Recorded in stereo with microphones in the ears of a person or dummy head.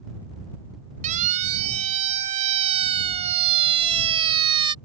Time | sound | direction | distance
1.0 | a siren | 40° right (ahead or behind) | ?